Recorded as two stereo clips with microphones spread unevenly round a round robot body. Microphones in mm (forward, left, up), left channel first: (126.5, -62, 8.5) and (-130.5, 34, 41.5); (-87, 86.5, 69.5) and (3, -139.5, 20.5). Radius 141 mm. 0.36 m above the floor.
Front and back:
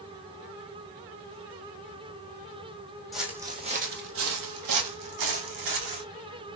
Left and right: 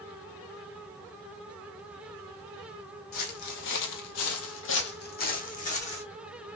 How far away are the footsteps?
About 1.0 m.